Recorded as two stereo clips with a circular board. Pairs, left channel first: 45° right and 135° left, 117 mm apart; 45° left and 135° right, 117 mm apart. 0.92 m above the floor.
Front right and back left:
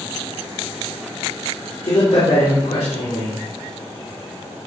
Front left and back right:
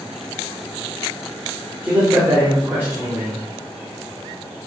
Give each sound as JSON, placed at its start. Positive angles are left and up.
{"t": 1.8, "sound": "a man speaking", "azimuth_deg": -65, "distance_m": 3.0}